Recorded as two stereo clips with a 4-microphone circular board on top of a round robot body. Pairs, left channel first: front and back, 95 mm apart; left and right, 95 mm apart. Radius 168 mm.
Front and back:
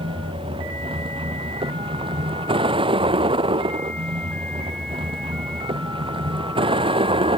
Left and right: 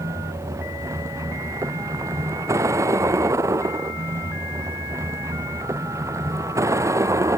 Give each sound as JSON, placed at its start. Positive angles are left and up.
{"t": 0.0, "sound": "a vehicle", "azimuth_deg": -150}